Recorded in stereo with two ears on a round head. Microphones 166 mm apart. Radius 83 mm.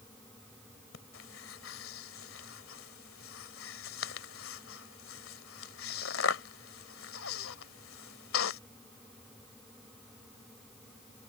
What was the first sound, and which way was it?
Breathing, 80° left.